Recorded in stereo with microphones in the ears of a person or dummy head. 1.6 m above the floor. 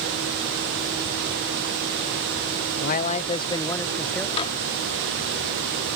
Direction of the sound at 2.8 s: 55° left (ahead or behind).